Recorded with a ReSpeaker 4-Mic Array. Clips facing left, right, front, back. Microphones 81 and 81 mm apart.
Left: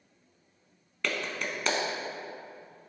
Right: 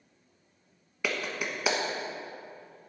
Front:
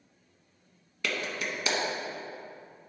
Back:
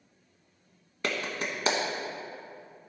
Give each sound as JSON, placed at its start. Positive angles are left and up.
{"t": 1.0, "sound": "a clap", "azimuth_deg": -165, "distance_m": 1.2}